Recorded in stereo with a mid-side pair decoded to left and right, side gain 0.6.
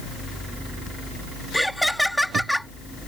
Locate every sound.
1.5 s laughter: 5° left